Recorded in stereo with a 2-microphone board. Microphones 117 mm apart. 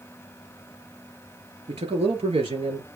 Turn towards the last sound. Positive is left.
turn(degrees=-65)  # may be behind; listen again after turning